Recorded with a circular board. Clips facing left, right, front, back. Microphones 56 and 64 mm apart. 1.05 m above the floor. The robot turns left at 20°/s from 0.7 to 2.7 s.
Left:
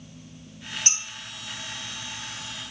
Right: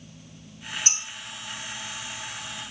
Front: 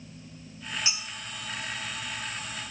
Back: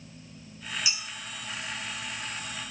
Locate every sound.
0.9 s dishes clattering: 50° left, 1.7 m; by 1.0 s 45° left, 1.7 m